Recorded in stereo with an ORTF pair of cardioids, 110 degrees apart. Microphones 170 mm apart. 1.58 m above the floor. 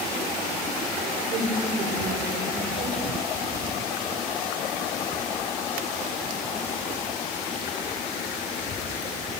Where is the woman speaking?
65° right, 6 m.